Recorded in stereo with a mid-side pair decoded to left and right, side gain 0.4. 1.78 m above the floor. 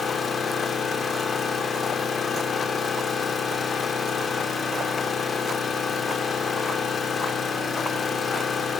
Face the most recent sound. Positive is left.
turn(degrees=50)